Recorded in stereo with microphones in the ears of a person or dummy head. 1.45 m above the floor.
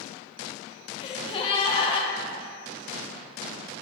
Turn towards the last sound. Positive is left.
turn(degrees=35)  # may be behind; listen again after turning